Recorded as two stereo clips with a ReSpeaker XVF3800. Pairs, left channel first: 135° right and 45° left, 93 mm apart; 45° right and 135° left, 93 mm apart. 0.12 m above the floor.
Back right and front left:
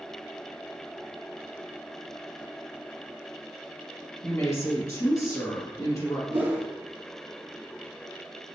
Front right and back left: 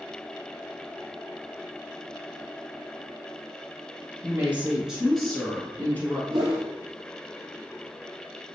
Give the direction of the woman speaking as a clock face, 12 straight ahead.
6 o'clock.